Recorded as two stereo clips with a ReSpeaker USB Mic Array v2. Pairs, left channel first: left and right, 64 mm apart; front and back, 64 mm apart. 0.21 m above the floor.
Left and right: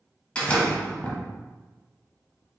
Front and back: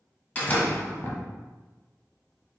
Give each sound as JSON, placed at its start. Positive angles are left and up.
{"t": 0.3, "sound": "a door slam", "azimuth_deg": 40, "distance_m": 1.0}